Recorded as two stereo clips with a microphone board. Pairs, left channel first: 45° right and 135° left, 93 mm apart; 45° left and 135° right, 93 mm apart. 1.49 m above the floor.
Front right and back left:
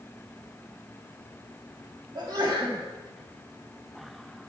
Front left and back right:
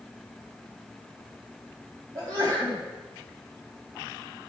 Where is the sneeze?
Straight behind, 2.5 m.